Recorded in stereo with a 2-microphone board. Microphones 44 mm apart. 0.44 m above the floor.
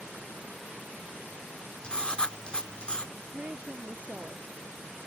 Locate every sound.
1.8 s writing: 25° left (ahead or behind)
3.1 s a woman speaking: 35° right (ahead or behind)